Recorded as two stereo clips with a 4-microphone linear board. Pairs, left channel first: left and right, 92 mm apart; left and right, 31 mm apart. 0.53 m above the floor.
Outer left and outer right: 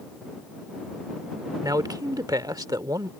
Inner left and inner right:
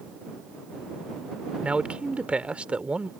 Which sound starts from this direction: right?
A man speaking, at 1.6 s.